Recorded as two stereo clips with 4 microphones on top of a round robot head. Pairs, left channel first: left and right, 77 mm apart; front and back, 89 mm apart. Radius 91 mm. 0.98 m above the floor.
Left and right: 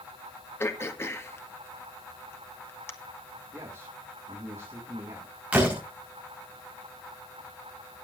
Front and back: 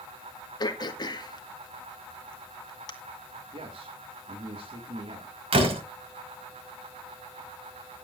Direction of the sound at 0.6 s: 35° left.